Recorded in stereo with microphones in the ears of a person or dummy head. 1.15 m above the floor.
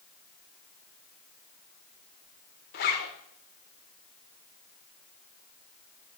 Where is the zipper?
35° left (ahead or behind), 0.9 m.